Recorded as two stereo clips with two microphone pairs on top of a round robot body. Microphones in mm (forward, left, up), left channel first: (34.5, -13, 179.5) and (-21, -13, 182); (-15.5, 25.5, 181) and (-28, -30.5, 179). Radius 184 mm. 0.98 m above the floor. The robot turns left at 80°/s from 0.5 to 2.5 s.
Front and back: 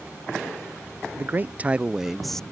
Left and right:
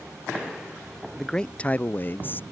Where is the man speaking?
170° left; by 2.4 s 65° left.